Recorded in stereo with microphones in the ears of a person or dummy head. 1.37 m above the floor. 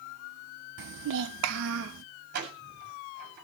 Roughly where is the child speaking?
Right.